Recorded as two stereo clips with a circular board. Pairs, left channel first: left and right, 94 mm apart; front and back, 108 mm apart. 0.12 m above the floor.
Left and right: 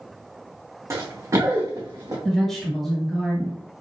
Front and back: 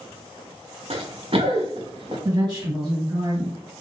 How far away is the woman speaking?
About 1.9 m.